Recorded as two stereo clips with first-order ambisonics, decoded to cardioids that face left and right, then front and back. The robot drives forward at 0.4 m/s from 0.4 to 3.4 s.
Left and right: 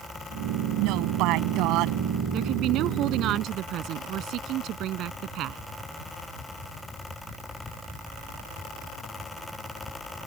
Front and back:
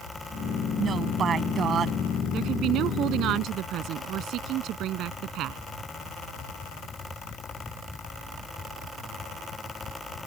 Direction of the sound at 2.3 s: 135° right.